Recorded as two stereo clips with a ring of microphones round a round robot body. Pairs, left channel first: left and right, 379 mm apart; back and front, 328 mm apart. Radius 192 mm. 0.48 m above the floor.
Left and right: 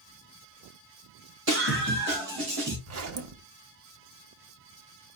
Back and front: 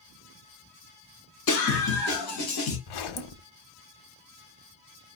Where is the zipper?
145° right, 0.6 m.